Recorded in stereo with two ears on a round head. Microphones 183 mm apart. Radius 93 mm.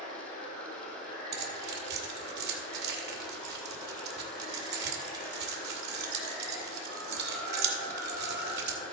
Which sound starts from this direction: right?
Keys jangling, at 1.3 s.